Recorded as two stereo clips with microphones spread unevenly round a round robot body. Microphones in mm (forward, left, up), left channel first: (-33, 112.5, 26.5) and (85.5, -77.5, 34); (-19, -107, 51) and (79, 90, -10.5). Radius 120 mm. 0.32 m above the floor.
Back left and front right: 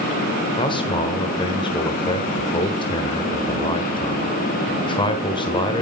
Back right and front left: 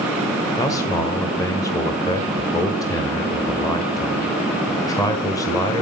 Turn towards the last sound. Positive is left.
turn(degrees=155)